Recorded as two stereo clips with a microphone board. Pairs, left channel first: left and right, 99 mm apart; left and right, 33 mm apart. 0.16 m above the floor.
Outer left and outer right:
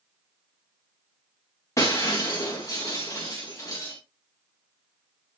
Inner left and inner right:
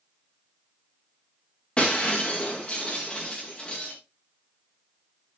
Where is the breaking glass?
35° left (ahead or behind), 4.5 m.